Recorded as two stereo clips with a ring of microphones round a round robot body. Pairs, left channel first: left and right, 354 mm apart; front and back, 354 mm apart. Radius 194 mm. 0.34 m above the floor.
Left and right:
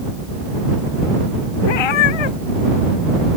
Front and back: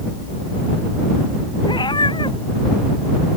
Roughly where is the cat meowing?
Left.